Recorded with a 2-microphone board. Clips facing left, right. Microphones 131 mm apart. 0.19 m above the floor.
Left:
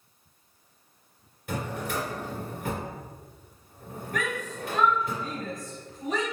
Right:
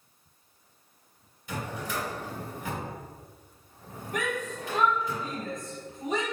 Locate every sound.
1.5 s a drawer: 60° left (ahead or behind), 1.8 m
4.1 s a shout: 20° right (ahead or behind), 1.0 m